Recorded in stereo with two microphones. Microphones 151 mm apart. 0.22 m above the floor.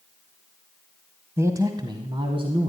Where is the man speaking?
20° right (ahead or behind), 1.0 m; by 2.7 s 45° right (ahead or behind), 1.6 m.